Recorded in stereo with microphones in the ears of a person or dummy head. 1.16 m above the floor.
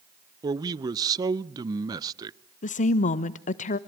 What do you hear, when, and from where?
0.4 s a man speaking: 25° right (ahead or behind), 0.6 m
2.6 s a woman speaking: 35° left (ahead or behind), 1.0 m